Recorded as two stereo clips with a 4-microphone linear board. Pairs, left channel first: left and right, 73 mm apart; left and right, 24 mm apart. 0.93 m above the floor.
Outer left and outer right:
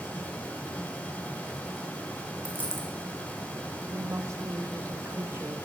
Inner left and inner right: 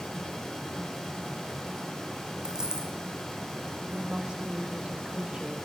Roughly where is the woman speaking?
Right.